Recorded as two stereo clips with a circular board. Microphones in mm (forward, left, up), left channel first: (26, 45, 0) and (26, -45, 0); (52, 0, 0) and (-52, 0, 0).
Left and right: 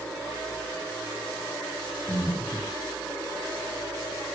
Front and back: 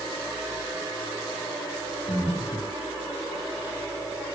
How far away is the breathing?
About 5 m.